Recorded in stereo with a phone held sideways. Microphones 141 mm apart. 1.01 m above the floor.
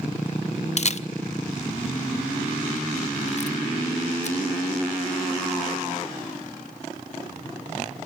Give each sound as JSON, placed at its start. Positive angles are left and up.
{"t": 0.8, "sound": "a camera shutter", "side_deg": 50, "distance_m": 0.6}